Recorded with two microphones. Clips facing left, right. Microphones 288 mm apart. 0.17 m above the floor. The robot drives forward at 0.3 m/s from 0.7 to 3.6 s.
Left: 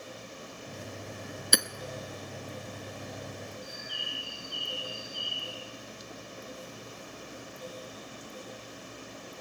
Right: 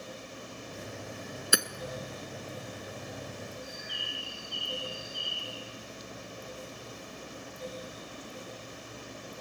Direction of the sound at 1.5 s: 5° right (ahead or behind).